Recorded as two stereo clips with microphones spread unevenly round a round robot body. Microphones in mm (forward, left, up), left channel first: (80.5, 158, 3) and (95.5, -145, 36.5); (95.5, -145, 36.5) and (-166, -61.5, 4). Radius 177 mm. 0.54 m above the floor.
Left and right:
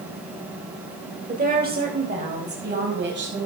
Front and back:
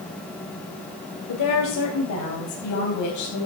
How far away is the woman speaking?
About 2 m.